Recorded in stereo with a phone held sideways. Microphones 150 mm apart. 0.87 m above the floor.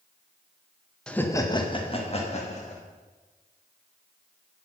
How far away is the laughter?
About 0.7 m.